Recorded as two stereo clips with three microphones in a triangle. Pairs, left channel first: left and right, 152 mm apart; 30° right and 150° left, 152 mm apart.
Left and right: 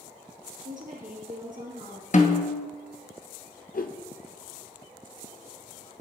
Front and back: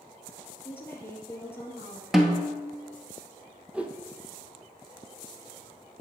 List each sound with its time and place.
0.7 s a woman speaking: 105° right, 2.5 m
2.1 s a snare drum: 65° left, 0.9 m
3.7 s a whoosh: 70° left, 0.6 m